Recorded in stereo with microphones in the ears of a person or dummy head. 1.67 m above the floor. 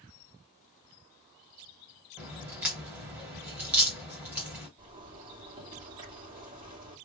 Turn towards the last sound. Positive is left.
turn(degrees=-25)  # may be behind; listen again after turning